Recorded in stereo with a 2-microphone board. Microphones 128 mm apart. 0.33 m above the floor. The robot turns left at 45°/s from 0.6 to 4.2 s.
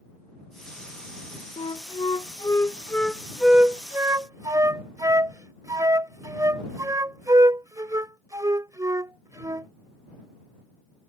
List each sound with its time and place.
1.6 s a flute: 45° left (ahead or behind); by 9.7 s 25° right (ahead or behind)